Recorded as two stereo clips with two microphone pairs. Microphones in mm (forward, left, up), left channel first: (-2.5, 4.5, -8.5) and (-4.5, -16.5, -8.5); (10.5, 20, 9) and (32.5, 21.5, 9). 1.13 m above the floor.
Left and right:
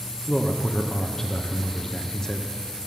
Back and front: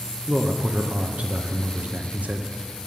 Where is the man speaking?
10° left, 0.6 m.